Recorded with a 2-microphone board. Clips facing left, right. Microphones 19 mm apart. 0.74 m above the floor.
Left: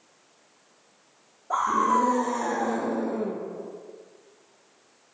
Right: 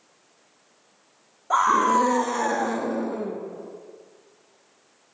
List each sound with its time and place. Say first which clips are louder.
1.5 s a scream: right 4 dB; 65° right (ahead or behind), 1.2 m; by 3.4 s 5° right (ahead or behind), 1.1 m